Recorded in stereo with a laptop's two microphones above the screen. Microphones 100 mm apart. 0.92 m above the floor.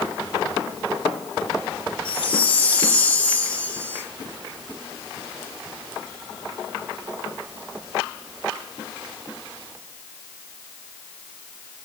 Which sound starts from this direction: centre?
A chime, at 2.0 s.